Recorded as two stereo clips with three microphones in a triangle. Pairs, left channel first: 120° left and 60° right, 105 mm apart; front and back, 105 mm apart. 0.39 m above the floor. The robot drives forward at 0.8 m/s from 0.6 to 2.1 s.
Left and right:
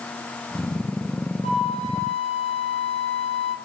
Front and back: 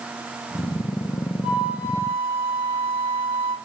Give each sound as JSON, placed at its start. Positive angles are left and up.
{"t": 1.4, "sound": "a flute", "azimuth_deg": 100, "distance_m": 3.0}